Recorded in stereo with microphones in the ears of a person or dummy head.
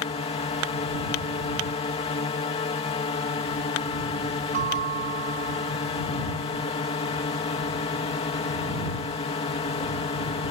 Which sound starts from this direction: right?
A bell, at 4.5 s.